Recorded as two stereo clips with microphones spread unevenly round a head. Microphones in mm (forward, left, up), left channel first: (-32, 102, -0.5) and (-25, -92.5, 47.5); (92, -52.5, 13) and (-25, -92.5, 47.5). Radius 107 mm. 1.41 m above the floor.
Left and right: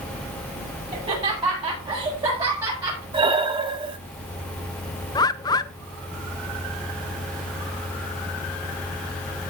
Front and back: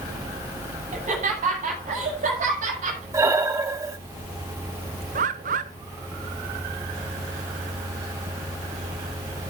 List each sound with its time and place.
0.9 s laughter: 150° right, 8.5 m; by 3.0 s 155° right, 7.5 m
3.1 s breathing: 125° right, 1.1 m
5.2 s a bird: 155° left, 0.7 m